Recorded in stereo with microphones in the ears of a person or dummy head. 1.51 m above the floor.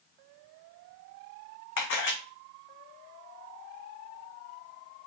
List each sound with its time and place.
1.8 s a camera shutter: 55° left (ahead or behind), 0.8 m